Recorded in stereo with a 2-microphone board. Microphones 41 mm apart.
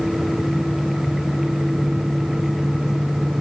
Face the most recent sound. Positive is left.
No sound to turn to.